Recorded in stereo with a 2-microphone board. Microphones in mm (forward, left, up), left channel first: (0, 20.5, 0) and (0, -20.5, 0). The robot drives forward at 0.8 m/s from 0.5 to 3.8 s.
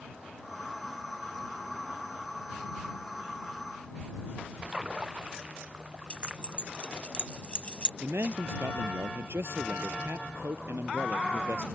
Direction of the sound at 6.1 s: 25° left (ahead or behind).